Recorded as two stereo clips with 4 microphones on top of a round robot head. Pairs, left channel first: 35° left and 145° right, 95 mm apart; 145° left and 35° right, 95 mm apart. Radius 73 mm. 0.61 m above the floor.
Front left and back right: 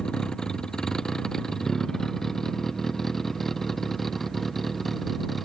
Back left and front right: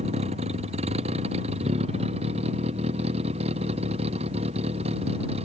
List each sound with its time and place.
0.0 s a vehicle: 50° right; by 5.5 s 55° right